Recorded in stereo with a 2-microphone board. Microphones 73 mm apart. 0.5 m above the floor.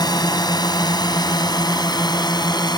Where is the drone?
70° left (ahead or behind); by 2.8 s 75° left (ahead or behind).